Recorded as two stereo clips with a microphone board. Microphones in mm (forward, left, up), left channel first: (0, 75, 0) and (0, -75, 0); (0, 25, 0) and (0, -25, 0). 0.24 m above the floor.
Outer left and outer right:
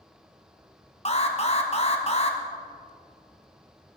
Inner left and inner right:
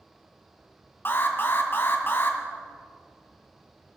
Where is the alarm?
45° left (ahead or behind), 1.5 m.